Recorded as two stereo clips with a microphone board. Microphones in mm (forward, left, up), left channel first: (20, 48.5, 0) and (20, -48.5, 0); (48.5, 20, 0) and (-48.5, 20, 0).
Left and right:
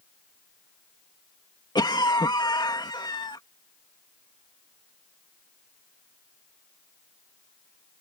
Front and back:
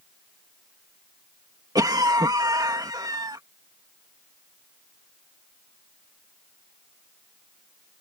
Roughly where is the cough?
Behind left.